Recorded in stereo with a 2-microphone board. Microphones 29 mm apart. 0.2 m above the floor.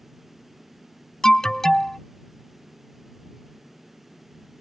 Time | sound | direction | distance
1.2 | an alarm | 20° left (ahead or behind) | ?